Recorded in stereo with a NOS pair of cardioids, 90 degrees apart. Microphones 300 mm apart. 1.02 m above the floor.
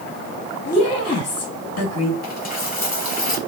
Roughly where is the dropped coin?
Ahead left.